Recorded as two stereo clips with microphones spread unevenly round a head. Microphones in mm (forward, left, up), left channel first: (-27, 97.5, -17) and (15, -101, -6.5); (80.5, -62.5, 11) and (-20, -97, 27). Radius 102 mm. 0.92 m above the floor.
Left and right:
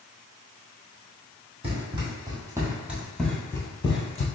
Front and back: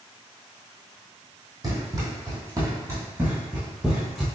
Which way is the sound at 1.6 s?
135° right.